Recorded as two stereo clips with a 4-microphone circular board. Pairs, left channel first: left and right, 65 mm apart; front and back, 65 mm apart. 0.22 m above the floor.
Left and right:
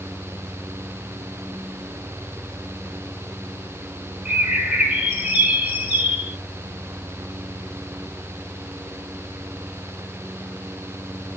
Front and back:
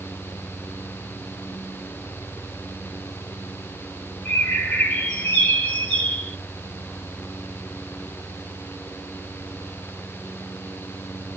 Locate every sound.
4.2 s a bird: 35° right, 0.9 m